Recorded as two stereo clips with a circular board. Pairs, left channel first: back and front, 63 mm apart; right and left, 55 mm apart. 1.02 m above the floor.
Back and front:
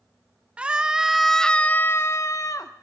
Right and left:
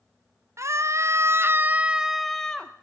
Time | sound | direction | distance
0.6 | a scream | 70° left | 1.0 m